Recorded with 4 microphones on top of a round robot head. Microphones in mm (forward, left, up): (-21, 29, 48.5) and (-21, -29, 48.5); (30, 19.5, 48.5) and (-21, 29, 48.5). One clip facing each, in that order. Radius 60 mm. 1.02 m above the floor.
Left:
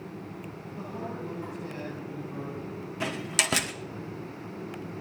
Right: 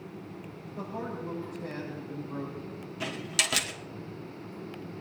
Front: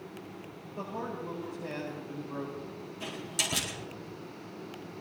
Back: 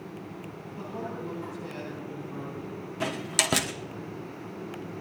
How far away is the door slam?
About 1.2 m.